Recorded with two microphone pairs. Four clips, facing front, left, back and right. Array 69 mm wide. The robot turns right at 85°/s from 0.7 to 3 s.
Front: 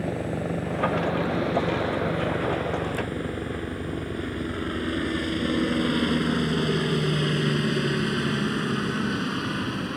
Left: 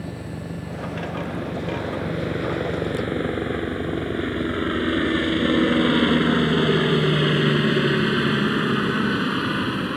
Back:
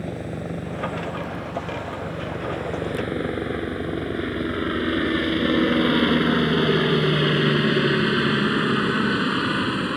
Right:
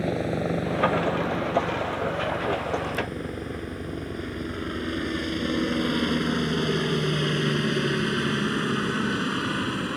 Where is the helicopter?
75° right; by 10.0 s 155° left.